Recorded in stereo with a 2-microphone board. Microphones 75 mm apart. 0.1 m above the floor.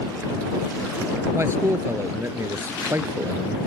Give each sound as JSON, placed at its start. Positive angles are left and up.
{"t": 1.3, "sound": "a man speaking", "side_deg": -35}